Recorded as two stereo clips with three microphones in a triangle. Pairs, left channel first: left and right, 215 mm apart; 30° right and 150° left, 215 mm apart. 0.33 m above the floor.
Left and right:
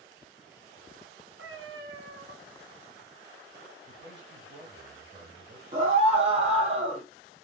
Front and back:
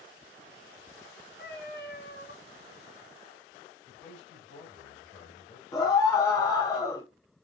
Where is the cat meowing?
70° right, 1.2 m.